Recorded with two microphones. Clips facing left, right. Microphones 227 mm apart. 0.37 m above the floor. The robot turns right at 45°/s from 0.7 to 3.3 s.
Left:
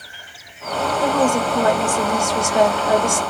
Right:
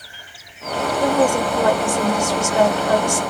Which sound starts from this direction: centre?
A woman speaking, at 1.0 s.